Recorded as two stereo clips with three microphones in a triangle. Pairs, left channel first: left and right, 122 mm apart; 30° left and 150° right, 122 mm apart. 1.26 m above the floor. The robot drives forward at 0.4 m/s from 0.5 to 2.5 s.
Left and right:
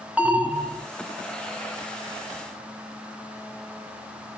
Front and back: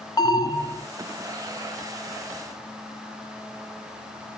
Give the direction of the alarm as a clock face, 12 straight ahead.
12 o'clock.